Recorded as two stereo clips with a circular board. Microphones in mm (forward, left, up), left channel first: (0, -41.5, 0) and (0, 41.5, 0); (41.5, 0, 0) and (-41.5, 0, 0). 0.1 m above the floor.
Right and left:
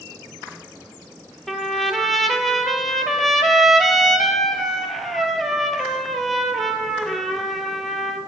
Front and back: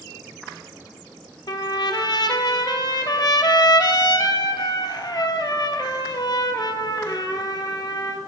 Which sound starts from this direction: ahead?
A trumpet, at 1.5 s.